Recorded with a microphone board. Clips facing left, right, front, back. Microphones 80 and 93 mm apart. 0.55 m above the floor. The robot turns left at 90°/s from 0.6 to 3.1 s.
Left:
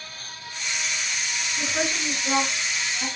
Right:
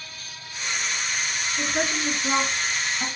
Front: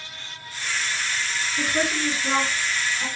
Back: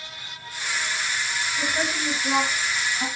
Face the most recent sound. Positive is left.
turn(degrees=-120)